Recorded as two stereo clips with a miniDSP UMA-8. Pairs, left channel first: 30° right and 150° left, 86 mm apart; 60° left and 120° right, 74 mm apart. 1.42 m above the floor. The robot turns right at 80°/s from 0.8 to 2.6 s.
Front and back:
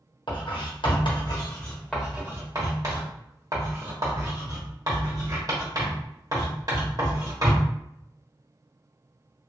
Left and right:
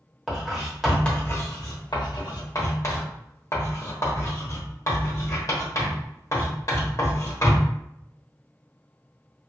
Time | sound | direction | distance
0.3 | writing | 35° right | 1.2 m